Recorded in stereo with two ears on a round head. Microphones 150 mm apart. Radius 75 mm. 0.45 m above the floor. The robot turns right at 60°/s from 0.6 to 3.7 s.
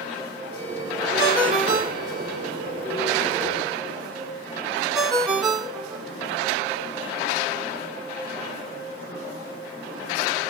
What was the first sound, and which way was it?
A ringtone, 30° right (ahead or behind).